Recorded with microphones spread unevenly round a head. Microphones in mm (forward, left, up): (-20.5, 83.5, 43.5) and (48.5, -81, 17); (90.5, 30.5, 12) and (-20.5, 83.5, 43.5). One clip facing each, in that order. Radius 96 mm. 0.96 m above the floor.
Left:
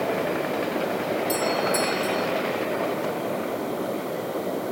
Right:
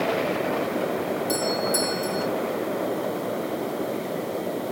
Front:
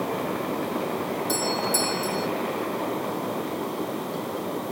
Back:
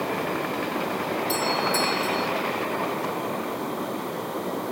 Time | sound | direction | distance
1.3 | a doorbell | 10° left | ?